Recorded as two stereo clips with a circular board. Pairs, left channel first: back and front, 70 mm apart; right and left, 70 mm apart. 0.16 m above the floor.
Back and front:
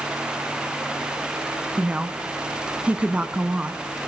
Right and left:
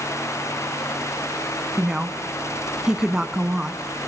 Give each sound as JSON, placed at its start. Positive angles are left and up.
{"t": 1.8, "sound": "a woman speaking", "azimuth_deg": 25, "distance_m": 1.0}